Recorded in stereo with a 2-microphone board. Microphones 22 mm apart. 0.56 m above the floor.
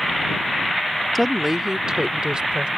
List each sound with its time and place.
1.1 s a woman speaking: centre (ahead or behind); by 2.7 s 60° right (ahead or behind)